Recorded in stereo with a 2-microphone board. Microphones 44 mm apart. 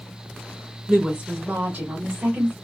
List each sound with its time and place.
0.9 s a woman speaking: 15° right (ahead or behind), 1.0 m; by 2.5 s 55° right (ahead or behind), 1.5 m